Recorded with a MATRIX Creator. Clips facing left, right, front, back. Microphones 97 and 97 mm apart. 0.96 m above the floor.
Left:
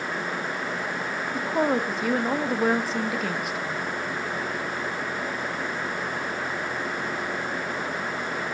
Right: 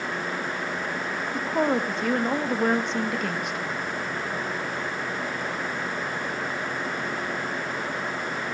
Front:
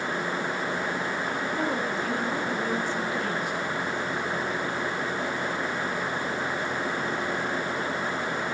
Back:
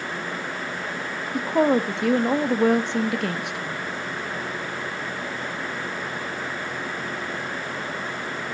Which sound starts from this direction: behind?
A woman speaking, at 1.3 s.